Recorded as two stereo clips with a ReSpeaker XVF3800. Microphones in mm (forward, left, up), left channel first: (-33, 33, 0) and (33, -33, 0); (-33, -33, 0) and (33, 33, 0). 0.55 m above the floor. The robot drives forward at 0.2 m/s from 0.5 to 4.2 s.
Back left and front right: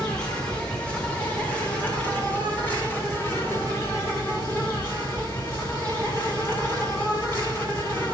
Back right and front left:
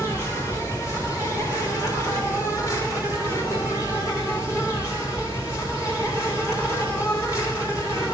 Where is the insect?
155° right, 2.0 m; by 8.1 s 165° right, 2.5 m.